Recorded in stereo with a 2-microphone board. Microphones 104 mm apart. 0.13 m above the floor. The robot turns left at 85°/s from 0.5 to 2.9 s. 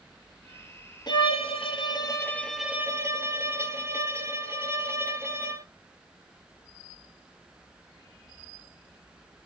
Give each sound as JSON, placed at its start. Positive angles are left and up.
{"t": 1.1, "sound": "a violin", "azimuth_deg": 125, "distance_m": 0.7}